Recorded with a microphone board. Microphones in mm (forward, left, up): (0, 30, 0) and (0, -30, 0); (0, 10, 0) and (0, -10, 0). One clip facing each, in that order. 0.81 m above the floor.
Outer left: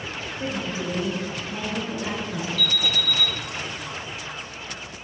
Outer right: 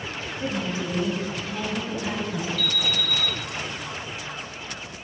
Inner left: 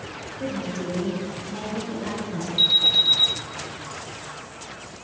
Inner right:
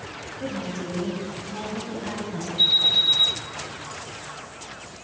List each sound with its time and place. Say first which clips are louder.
0.4 s a woman speaking: outer right 1 dB, inner left 2 dB; 25° left (ahead or behind), 2.5 m; by 2.5 s 30° left (ahead or behind), 3.5 m
2.6 s an alarm: outer left 1 dB, inner left 1 dB; 50° left (ahead or behind), 1.3 m